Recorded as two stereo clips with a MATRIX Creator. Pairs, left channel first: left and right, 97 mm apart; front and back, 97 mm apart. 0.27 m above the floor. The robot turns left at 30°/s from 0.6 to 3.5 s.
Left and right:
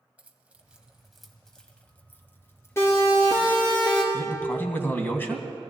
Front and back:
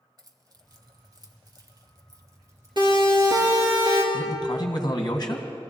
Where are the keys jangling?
165° right, 1.2 m; by 3.5 s 110° left, 1.2 m.